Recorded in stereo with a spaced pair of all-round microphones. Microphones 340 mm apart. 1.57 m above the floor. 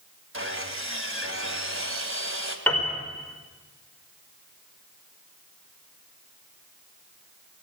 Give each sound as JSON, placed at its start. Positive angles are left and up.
{"t": 0.3, "sound": "sawing", "side_deg": -40, "distance_m": 2.5}
{"t": 2.7, "sound": "a piano", "side_deg": 5, "distance_m": 5.0}